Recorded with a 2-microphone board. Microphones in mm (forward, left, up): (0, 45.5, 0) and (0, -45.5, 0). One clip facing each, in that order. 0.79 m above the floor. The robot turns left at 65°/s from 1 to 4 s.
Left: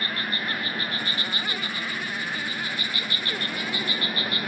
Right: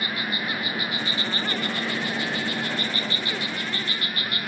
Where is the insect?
10° right; by 4.5 s 155° left.